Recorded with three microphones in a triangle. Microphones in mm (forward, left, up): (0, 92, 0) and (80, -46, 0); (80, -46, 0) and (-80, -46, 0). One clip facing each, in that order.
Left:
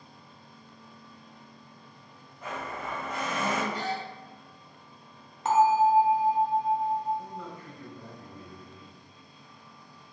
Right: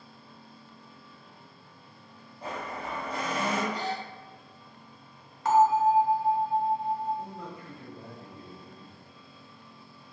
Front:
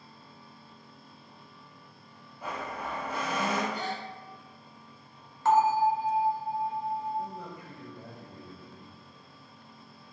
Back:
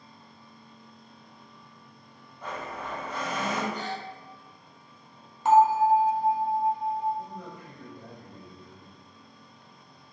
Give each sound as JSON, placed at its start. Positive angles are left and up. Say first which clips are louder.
{"t": 2.4, "sound": "a blender", "louder": "even, even", "azimuth_deg": -75, "distance_m": 0.6}
{"t": 3.7, "sound": "a gasp", "louder": "even, even", "azimuth_deg": 160, "distance_m": 1.6}
{"t": 5.5, "sound": "a bell", "louder": "even, back 4 dB", "azimuth_deg": 135, "distance_m": 0.6}
{"t": 7.2, "sound": "a man speaking", "louder": "even, front 1 dB", "azimuth_deg": -40, "distance_m": 1.0}